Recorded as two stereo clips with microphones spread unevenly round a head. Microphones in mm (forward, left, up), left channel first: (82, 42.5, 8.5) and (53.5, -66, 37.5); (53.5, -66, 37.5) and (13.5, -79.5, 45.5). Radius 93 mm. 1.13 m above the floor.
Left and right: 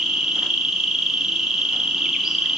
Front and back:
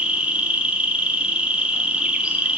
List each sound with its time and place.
0.0 s an insect: 145° left, 1.4 m